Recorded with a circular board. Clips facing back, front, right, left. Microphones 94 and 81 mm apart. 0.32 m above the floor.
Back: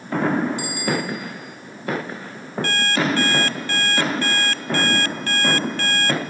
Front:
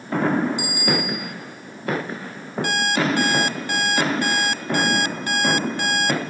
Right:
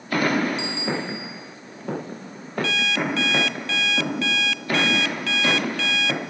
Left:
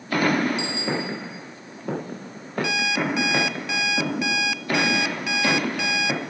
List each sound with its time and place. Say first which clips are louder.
0.6 s a bicycle bell: even, even; 70° left, 3 m
2.6 s an alarm clock: even, even; 40° left, 0.5 m